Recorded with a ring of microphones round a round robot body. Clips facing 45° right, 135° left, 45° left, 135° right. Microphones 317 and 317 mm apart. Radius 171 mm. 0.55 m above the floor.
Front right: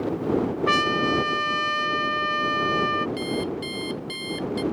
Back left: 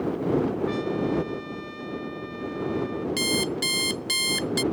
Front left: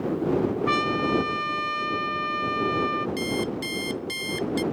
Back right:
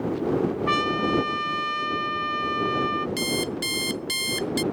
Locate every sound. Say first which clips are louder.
0.7 s a trumpet: front right 1 dB, even; 50° right
3.2 s an alarm clock: even, even; 160° left